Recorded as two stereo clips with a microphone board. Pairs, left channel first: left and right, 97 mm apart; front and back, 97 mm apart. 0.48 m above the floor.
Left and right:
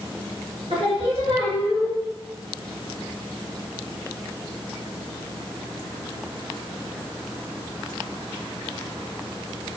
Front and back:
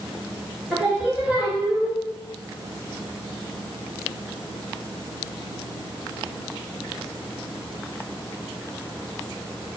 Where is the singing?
105° right, 1.2 m.